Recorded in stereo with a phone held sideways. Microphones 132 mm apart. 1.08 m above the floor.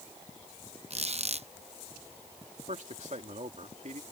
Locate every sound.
0.9 s a squeak: 55° right (ahead or behind)
2.7 s a man speaking: 65° right (ahead or behind)